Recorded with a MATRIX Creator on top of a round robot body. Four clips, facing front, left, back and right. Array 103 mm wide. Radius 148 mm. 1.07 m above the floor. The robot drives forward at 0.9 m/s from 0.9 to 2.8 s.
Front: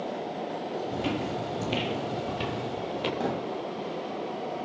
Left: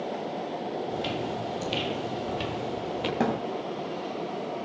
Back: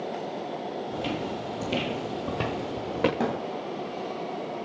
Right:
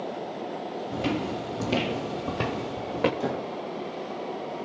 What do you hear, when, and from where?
0.9 s footsteps: 70° right, 2.5 m; by 3.1 s 145° right, 2.5 m
3.2 s a thud: 110° left, 8.5 m